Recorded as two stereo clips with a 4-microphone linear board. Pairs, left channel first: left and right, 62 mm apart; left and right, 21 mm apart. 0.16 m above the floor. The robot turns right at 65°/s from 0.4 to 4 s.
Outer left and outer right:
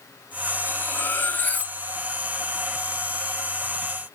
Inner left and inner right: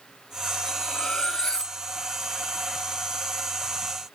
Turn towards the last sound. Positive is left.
turn(degrees=-75)